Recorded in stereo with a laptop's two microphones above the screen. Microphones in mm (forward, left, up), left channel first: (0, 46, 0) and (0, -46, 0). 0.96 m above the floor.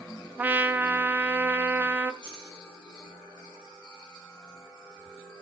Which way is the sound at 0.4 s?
20° right (ahead or behind).